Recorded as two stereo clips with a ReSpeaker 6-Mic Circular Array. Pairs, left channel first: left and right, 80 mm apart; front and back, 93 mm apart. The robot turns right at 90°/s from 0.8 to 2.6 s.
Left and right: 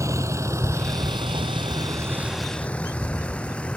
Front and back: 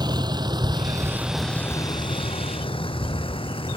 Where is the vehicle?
140° right; by 3.8 s 15° left.